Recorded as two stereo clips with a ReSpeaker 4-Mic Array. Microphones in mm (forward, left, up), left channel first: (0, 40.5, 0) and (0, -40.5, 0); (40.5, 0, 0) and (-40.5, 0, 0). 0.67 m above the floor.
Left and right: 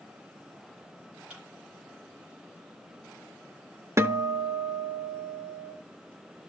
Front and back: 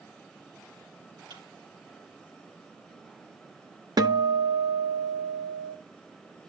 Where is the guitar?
145° right, 0.9 m.